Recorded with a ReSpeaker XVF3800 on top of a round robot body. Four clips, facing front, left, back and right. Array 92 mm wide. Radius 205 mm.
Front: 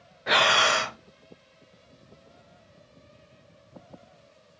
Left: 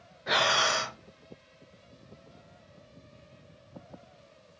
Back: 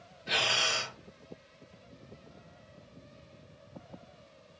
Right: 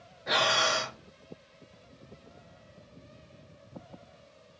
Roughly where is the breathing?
Ahead.